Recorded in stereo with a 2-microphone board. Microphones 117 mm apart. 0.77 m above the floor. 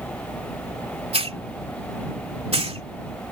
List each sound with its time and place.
1.1 s a hiss: 60° right (ahead or behind)